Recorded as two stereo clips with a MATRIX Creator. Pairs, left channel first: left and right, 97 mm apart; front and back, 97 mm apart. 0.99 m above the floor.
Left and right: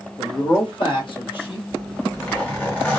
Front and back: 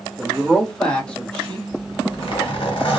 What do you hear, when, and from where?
0.2 s a man speaking: 85° left, 0.9 m; by 1.6 s 75° left, 1.6 m
1.7 s a zipper: 20° left, 1.3 m